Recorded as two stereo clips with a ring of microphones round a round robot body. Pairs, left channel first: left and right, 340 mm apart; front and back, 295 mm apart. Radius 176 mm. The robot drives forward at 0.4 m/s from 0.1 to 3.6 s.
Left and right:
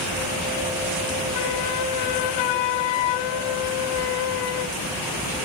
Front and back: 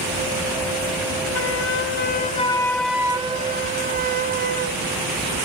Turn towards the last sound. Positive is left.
turn(degrees=115)